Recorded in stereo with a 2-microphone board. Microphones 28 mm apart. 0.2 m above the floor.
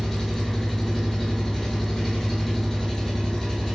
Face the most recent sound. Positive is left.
turn(degrees=10)  # may be behind; listen again after turning